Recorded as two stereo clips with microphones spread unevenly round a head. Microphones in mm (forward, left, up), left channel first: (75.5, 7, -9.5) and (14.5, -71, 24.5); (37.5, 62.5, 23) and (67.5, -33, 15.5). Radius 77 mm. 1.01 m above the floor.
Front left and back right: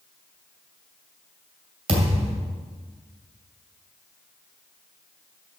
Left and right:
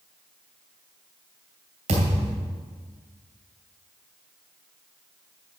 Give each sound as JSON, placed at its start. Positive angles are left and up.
{"t": 1.9, "sound": "a thud", "azimuth_deg": -110, "distance_m": 2.5}